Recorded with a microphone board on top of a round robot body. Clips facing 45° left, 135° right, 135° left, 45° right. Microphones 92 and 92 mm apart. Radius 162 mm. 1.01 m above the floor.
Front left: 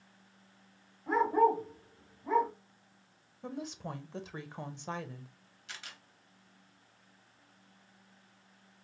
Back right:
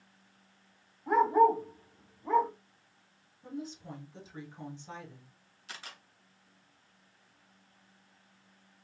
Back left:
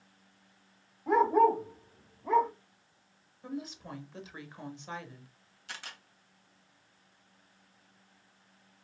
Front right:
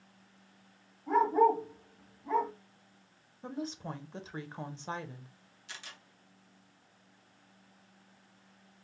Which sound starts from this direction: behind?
A camera shutter, at 5.7 s.